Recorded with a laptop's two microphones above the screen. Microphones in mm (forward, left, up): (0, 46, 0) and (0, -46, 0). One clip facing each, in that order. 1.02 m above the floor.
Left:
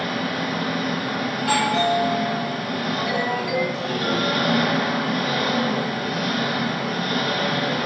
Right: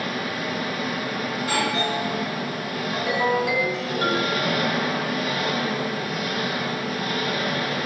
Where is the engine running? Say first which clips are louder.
Left 3 dB; 75° left (ahead or behind), 2.5 m.